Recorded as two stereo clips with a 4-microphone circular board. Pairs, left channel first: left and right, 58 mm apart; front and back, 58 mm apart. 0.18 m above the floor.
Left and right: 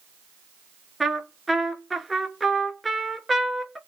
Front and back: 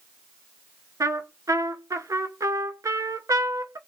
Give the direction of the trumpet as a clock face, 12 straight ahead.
6 o'clock.